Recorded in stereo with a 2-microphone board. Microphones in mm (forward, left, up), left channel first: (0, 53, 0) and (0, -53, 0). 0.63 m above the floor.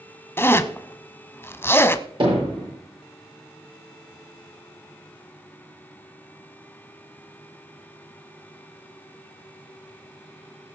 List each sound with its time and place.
0.4 s a zipper: 20° left (ahead or behind), 0.9 m
2.2 s hammering: 55° right (ahead or behind), 9.5 m